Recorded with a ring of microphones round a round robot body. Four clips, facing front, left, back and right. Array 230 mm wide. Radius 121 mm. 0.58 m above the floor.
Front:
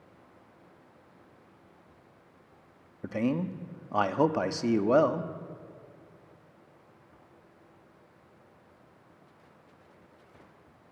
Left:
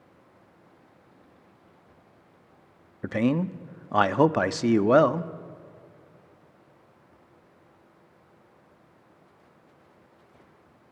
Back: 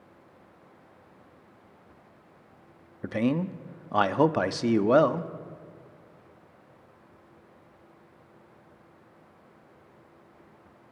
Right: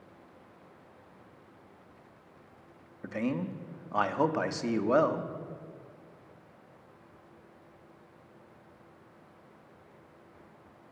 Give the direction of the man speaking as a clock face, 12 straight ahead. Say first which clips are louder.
Left 8 dB, back 3 dB; 8 o'clock.